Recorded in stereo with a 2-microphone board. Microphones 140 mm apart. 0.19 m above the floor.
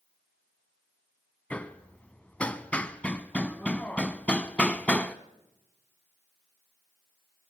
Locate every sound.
1.5 s hammering: 10° left (ahead or behind), 0.7 m